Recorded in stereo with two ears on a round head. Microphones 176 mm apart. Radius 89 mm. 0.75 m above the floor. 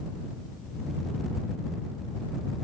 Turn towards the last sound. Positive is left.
No sound to turn to.